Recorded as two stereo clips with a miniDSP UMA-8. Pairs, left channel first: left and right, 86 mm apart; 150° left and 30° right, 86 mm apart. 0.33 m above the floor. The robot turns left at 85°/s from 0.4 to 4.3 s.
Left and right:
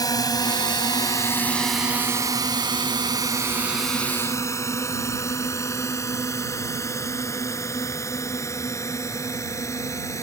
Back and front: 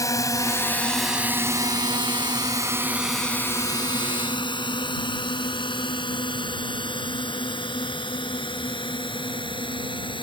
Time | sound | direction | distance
0.0 | a drone | 115° left | ?